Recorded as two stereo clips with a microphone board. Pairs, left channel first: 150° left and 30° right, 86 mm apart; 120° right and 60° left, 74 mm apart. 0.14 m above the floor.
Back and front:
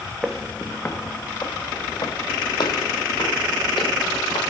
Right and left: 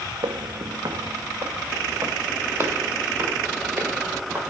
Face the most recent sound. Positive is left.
turn(degrees=125)